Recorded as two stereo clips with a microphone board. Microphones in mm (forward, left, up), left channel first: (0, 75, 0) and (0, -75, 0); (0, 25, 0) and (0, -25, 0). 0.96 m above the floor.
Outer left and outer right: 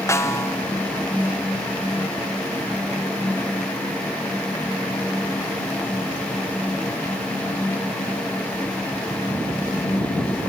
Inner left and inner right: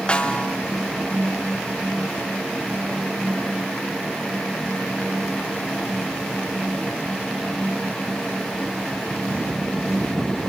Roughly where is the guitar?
No guitar in this recording.